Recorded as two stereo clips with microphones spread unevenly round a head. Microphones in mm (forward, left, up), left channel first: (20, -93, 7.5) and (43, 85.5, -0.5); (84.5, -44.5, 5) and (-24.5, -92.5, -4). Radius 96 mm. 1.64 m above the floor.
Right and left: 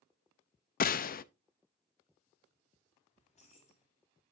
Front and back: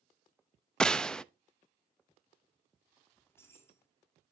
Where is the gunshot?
60° right, 0.5 m.